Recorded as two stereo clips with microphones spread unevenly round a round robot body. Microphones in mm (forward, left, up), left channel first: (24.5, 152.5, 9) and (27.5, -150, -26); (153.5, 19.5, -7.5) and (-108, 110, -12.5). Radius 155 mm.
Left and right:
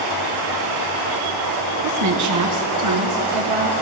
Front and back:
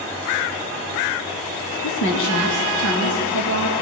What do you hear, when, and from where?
1.8 s a woman speaking: 70° right, 1.8 m; by 3.7 s 65° right, 4 m